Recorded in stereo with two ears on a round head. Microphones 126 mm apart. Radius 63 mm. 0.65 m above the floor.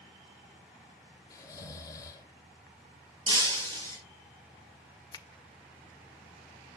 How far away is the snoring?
About 1.2 m.